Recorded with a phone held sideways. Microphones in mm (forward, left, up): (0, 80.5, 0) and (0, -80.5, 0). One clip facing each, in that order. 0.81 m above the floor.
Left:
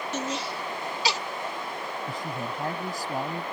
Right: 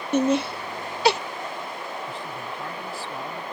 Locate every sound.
0.1 s laughter: 55° right (ahead or behind)
2.1 s a man speaking: 40° left (ahead or behind)